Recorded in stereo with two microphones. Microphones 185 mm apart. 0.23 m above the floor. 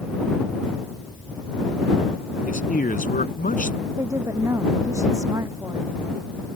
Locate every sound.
2.5 s a man speaking: 55° left (ahead or behind)
3.8 s a woman speaking: 15° right (ahead or behind)